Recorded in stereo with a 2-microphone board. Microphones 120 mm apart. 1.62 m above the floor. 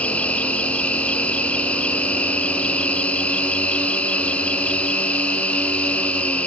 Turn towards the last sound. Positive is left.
turn(degrees=10)  # may be behind; listen again after turning